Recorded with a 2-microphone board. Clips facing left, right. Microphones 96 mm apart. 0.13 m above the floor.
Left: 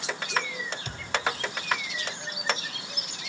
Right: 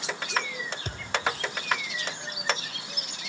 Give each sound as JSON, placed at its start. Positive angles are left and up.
{"t": 0.8, "sound": "a thud", "side_deg": -45, "distance_m": 0.9}